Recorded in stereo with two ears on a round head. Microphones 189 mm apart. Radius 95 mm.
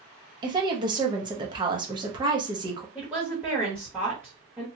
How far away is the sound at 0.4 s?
About 0.9 m.